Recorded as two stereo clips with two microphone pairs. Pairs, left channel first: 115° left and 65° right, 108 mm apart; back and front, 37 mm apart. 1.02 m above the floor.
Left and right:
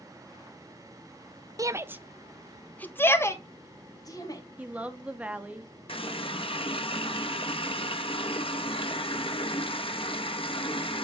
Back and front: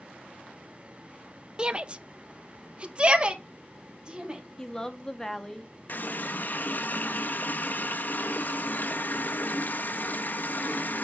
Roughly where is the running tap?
Behind left.